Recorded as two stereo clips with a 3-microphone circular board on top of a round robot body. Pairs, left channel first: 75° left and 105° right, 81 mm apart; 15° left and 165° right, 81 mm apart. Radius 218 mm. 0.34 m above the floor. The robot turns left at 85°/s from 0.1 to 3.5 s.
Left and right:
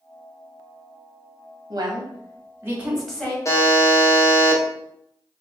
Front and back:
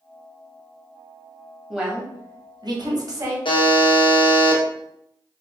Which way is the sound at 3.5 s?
25° left.